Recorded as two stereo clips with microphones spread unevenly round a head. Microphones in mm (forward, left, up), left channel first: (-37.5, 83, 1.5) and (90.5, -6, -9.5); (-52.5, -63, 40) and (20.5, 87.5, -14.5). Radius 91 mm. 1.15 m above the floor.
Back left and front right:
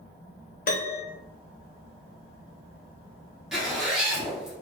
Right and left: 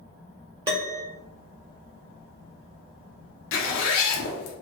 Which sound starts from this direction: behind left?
A piano, at 0.7 s.